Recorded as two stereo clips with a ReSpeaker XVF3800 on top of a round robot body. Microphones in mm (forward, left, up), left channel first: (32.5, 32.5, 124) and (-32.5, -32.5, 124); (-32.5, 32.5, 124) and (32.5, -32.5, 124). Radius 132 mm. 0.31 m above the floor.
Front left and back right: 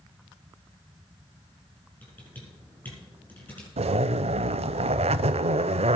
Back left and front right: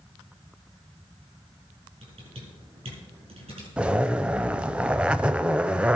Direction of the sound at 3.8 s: 125° right.